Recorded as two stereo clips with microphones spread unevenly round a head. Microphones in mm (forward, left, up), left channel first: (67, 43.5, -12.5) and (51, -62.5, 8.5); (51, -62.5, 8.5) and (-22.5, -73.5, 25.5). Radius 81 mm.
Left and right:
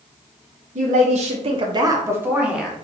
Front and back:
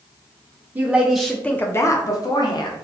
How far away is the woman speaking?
About 1.0 m.